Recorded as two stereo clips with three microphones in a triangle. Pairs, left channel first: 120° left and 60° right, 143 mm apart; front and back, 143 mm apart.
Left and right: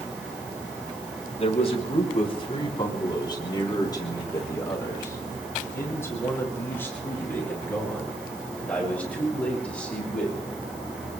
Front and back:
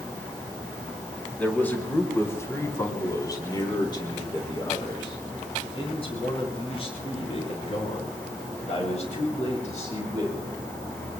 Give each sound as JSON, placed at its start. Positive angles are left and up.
{"t": 1.4, "sound": "a man speaking", "azimuth_deg": 80, "distance_m": 3.5}